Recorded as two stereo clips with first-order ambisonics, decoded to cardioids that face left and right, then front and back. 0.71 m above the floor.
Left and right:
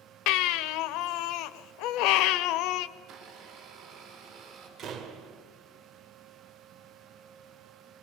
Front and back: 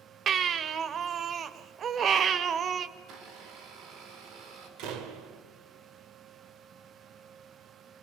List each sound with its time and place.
0.3 s a baby crying: 115° left, 0.8 m
3.0 s a blender: 140° right, 5.5 m
4.8 s a door slam: 150° right, 2 m